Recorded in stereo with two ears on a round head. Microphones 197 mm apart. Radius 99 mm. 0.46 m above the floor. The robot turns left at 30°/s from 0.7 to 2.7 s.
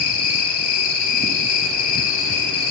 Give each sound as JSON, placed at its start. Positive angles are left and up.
{"t": 0.0, "sound": "an insect", "azimuth_deg": 100, "distance_m": 1.0}